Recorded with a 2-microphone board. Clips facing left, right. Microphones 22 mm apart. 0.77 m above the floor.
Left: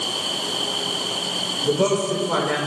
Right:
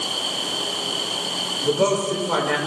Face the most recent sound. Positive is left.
turn(degrees=-15)  # may be behind; listen again after turning